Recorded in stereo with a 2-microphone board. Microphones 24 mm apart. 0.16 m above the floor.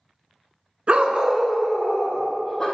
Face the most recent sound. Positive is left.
turn(degrees=15)  # may be behind; listen again after turning